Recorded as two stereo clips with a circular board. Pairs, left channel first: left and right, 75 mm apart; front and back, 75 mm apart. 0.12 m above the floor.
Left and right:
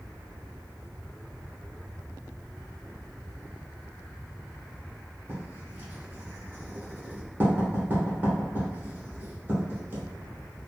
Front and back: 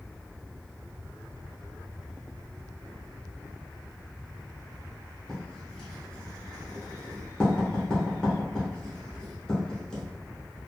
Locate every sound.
5.3 s writing: 70° right, 1.1 m